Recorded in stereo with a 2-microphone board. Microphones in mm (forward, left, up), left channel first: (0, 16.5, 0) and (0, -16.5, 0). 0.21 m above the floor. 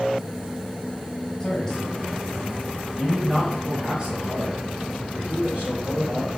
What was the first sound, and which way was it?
A man speaking, 20° left (ahead or behind).